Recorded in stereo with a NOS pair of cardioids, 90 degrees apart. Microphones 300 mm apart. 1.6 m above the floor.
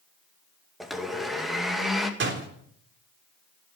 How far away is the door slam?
About 3.5 m.